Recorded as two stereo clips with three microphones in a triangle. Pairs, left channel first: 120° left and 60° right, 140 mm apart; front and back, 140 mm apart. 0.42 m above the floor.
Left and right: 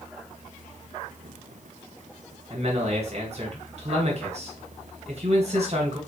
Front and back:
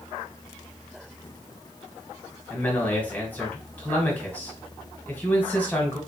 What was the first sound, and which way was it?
A man speaking, 75° right.